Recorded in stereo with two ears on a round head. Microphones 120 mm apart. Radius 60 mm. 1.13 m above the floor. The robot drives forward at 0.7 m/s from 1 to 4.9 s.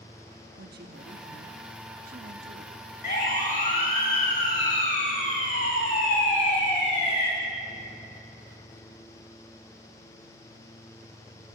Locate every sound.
0.6 s a woman speaking: 80° right, 1.7 m; by 2.9 s 55° right (ahead or behind), 1.9 m
3.0 s a siren: 55° left (ahead or behind), 9 m; by 7.3 s 50° left (ahead or behind), 10.5 m